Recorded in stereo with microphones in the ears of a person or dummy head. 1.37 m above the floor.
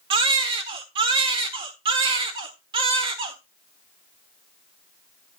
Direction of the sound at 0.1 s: 25° right (ahead or behind).